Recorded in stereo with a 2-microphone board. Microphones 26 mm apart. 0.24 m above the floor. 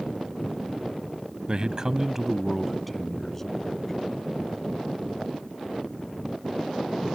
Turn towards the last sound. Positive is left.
turn(degrees=15)  # may be behind; listen again after turning